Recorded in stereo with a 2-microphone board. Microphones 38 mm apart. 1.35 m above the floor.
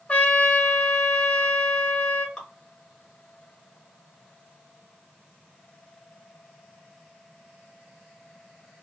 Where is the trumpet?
35° left (ahead or behind), 0.5 m.